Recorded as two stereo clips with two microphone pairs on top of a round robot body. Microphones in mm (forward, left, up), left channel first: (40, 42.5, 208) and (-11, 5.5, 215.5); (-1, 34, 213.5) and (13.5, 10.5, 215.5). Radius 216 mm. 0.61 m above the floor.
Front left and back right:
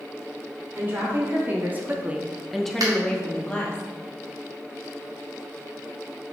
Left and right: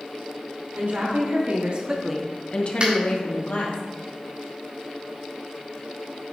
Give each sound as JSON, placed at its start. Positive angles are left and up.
{"t": 0.8, "sound": "a woman speaking", "azimuth_deg": -80, "distance_m": 2.0}
{"t": 2.8, "sound": "a finger snap", "azimuth_deg": -115, "distance_m": 2.5}